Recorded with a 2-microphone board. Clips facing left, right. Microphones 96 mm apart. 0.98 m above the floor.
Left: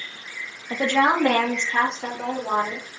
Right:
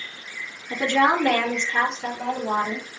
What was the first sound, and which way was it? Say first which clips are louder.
A woman speaking: even; 40° left (ahead or behind).